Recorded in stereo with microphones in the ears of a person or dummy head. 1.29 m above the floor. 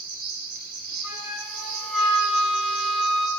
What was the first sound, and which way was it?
An insect, 55° right (ahead or behind).